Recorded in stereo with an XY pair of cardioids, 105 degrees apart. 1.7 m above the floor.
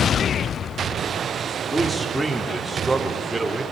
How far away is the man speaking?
About 4 m.